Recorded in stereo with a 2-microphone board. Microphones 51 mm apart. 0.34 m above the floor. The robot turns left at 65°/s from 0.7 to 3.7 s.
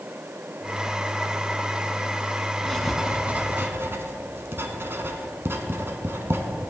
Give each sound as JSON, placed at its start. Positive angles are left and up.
{"t": 2.6, "sound": "writing", "side_deg": 15, "distance_m": 1.0}